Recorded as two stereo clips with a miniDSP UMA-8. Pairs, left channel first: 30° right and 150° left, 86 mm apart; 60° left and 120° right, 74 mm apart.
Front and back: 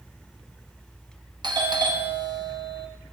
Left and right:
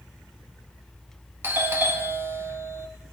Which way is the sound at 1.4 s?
Straight behind.